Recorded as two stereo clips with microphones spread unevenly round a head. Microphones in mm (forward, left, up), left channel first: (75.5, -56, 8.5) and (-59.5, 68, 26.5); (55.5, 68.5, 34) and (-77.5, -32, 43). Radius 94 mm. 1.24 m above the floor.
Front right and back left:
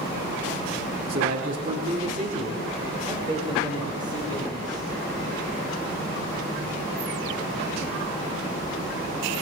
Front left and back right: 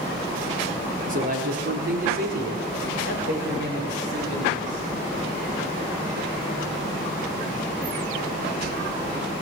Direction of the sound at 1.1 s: Straight behind.